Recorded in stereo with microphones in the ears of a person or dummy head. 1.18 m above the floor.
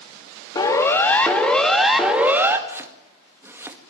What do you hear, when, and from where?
0.6 s a siren: 20° left (ahead or behind), 3 m; by 2.6 s 10° right (ahead or behind), 3 m
2.7 s chopping: 10° right (ahead or behind), 2 m